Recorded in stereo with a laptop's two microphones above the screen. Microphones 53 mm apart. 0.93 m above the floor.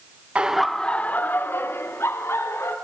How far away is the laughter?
About 1.0 m.